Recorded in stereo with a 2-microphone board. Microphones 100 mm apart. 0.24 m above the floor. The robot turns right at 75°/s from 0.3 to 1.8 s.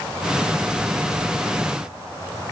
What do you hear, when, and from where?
Only background noise.